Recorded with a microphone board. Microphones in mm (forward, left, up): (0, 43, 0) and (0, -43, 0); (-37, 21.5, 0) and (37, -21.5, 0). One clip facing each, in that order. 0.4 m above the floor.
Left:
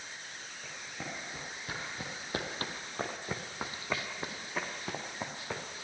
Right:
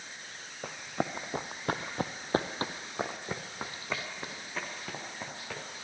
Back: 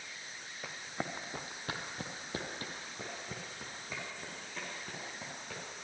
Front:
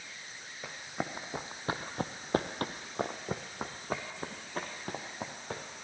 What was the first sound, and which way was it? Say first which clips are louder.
Running footsteps: right 10 dB, front 3 dB; 115° right.